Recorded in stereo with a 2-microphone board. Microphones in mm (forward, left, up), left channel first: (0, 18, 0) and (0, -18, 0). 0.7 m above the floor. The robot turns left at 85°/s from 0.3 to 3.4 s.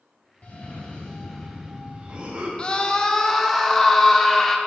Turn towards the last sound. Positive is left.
turn(degrees=5)  # may be behind; listen again after turning